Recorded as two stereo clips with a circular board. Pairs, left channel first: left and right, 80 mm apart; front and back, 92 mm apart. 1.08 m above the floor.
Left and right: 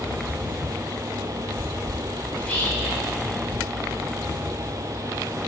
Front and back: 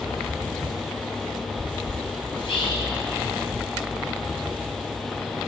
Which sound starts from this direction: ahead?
Whispering, at 2.3 s.